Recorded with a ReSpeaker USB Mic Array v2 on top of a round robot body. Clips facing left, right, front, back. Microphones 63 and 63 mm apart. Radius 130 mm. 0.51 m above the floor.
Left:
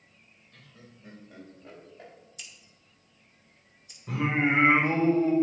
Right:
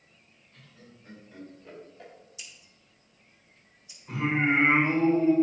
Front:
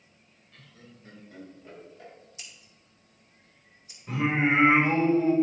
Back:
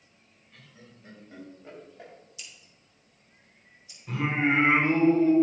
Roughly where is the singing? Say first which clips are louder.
Even, front 1 dB; left.